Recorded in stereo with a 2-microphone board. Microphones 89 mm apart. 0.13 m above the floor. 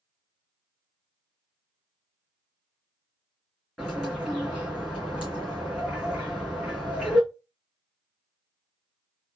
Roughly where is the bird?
Centre.